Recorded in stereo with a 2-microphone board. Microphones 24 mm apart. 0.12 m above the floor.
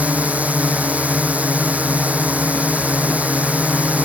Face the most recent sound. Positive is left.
turn(degrees=-75)  # may be behind; listen again after turning